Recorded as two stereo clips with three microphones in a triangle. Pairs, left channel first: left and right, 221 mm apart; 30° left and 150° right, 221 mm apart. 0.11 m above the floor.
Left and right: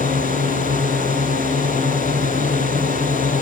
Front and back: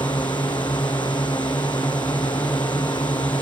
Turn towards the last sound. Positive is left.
turn(degrees=-40)